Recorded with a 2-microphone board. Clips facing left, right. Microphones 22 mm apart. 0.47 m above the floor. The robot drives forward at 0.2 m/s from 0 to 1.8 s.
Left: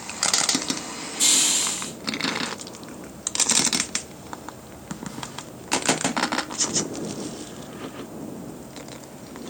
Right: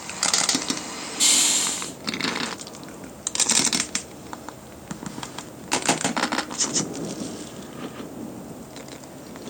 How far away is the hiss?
About 1.6 m.